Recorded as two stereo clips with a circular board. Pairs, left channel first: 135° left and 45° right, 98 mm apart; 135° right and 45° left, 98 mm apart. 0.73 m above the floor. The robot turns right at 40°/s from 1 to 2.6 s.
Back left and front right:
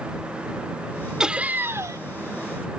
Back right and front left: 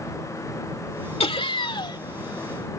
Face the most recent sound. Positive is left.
turn(degrees=-75)